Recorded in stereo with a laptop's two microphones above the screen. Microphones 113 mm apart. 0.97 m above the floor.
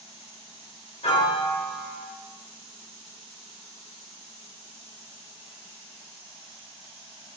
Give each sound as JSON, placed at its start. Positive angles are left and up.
{"t": 1.0, "sound": "a piano", "side_deg": 65, "distance_m": 1.1}